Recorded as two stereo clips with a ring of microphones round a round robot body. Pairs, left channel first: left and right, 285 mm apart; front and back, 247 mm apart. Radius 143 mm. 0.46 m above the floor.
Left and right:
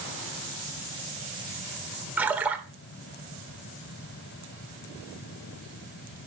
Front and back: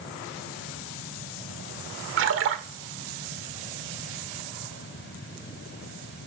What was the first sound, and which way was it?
A splash, 170° right.